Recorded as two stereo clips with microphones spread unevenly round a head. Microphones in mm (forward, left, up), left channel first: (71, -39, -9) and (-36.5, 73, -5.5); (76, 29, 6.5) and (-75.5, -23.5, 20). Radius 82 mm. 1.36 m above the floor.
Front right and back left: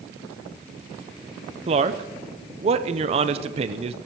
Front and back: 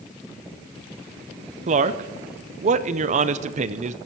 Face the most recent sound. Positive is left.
turn(degrees=170)